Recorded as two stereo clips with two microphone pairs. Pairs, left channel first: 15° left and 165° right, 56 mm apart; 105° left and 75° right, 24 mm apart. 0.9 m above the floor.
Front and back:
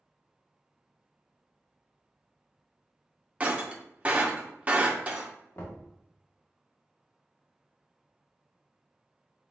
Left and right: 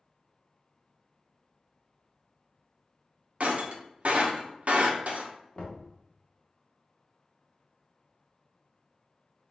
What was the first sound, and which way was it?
Breaking glass, 100° right.